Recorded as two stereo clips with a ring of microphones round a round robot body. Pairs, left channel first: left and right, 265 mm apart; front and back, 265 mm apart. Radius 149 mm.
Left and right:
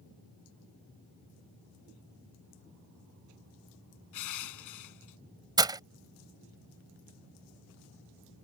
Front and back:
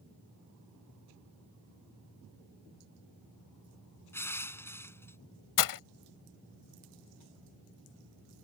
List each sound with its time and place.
4.1 s crushing: 80° left
5.6 s breaking glass: 15° right